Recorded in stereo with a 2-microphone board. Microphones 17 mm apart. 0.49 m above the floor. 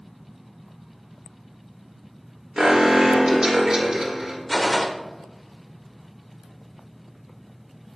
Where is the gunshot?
15° left (ahead or behind), 0.8 m.